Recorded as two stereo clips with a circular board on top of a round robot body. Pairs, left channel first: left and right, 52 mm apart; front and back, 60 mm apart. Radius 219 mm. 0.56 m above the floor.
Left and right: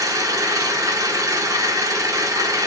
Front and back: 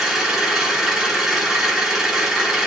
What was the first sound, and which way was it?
An engine running, 95° right.